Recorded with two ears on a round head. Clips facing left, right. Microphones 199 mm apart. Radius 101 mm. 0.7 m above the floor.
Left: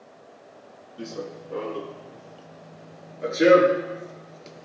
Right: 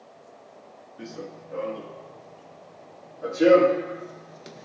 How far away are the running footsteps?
About 1.7 m.